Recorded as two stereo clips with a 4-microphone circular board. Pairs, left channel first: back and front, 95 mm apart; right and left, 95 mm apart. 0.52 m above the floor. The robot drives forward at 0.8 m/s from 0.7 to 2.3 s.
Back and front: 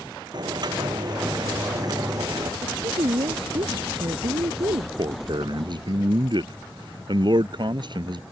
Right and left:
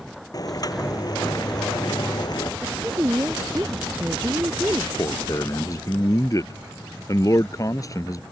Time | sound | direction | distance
0.3 | boiling | 40° right | ?
2.6 | a woman speaking | 25° left | ?
5.0 | a man speaking | 35° right | ?